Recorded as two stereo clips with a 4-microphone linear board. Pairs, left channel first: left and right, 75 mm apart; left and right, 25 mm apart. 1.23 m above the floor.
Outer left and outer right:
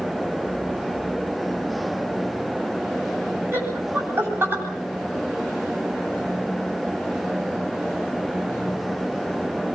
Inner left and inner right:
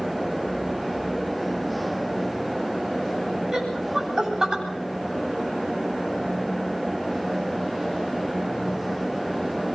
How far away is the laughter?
About 9.5 m.